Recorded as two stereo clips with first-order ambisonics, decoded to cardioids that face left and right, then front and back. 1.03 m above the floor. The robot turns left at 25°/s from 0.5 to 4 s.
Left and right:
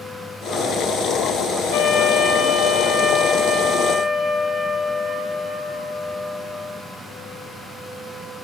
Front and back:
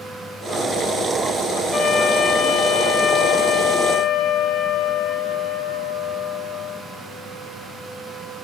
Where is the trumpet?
75° left, 3.5 m; by 6.8 s 20° left, 3.5 m.